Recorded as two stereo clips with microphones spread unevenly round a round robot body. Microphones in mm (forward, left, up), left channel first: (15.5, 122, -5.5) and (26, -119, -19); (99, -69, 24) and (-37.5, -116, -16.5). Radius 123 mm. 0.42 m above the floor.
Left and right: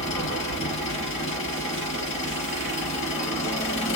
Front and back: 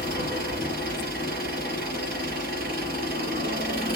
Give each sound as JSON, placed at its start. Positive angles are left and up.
{"t": 0.0, "sound": "an engine running", "azimuth_deg": 155, "distance_m": 3.5}